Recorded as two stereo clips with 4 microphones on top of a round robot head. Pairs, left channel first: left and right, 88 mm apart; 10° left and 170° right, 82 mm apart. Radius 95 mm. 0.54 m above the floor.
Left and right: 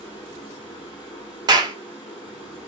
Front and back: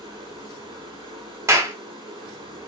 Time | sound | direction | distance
0.0 | running water | 160° left | 1.6 m
1.5 | a clap | 120° right | 0.7 m